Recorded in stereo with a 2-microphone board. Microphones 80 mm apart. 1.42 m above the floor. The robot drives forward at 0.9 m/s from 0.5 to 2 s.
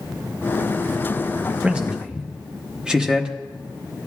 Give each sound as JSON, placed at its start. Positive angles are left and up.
{"t": 1.6, "sound": "a man speaking", "side_deg": -15, "distance_m": 0.6}